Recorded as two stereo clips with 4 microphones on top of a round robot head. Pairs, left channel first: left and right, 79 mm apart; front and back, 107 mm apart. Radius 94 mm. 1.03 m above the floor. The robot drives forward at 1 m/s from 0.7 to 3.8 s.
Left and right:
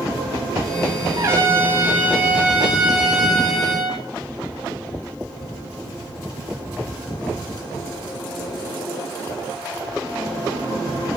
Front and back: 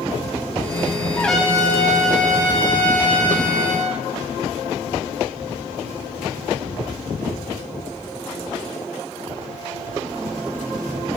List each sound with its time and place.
1.2 s a trumpet: 65° right, 0.9 m; by 4.0 s 175° right, 2.5 m